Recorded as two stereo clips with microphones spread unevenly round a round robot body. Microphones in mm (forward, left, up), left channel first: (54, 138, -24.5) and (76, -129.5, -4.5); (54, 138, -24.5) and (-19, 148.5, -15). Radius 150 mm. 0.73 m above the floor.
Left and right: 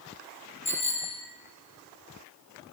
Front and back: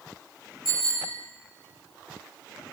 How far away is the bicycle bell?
About 5 m.